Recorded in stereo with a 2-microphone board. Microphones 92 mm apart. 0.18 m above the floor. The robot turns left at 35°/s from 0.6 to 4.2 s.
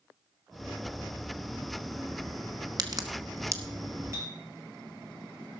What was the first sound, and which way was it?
A crack, 50° right (ahead or behind).